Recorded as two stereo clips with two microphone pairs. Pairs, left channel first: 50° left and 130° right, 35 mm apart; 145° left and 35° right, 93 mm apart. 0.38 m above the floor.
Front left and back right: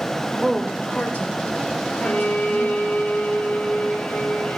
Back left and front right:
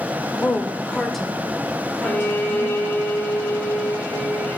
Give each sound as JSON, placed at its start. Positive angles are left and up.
{"t": 0.4, "sound": "a woman speaking", "azimuth_deg": 140, "distance_m": 0.9}
{"t": 2.0, "sound": "a violin", "azimuth_deg": 75, "distance_m": 1.0}